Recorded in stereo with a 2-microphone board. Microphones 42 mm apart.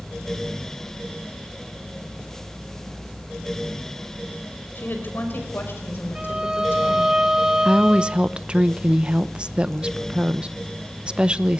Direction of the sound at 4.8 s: 50° left (ahead or behind).